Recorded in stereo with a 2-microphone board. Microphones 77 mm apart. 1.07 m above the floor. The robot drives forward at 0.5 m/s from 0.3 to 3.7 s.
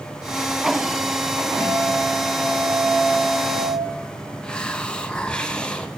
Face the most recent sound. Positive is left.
turn(degrees=10)  # may be behind; listen again after turning